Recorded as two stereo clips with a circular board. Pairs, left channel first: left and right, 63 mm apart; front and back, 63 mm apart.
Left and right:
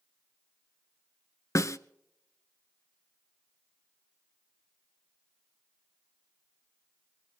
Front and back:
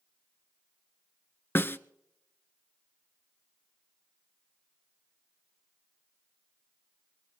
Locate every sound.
1.6 s a snare drum: 55° left, 0.6 m